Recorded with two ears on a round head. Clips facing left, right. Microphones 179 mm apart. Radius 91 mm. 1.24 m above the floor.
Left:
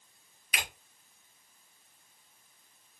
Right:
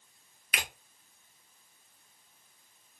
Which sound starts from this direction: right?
A finger snap, at 0.5 s.